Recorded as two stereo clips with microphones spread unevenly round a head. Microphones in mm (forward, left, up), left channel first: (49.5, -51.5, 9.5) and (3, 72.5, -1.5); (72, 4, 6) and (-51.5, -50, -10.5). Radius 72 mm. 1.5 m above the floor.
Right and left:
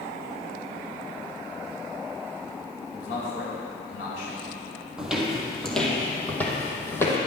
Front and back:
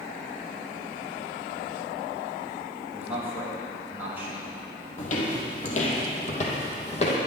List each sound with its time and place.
2.9 s a man speaking: 80° right, 6 m
5.0 s footsteps: 25° left, 3 m; by 7.2 s 5° right, 3.5 m